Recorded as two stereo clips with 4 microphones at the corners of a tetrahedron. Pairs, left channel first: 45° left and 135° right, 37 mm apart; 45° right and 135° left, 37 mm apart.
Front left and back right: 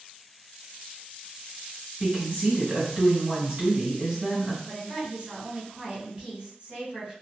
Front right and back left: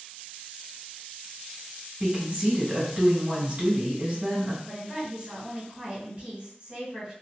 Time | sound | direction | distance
2.0 | a woman speaking | straight behind | 1.6 m
4.7 | a woman speaking | straight behind | 1.9 m